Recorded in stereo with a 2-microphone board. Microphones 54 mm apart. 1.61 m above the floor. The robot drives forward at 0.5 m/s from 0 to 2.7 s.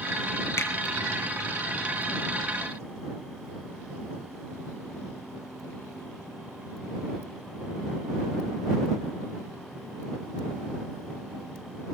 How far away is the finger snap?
About 0.8 m.